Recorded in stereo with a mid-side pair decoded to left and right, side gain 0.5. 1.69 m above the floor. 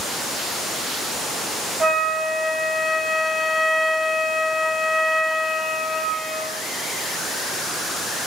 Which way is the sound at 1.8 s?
25° right.